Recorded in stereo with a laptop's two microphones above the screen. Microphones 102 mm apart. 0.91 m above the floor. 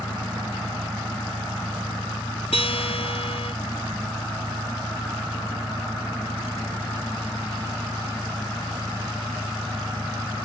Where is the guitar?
75° left (ahead or behind).